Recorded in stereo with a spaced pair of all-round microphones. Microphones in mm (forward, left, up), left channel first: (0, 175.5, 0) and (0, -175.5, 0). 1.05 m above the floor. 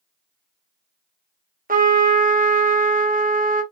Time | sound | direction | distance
1.7 | a trumpet | 25° right (ahead or behind) | 0.7 m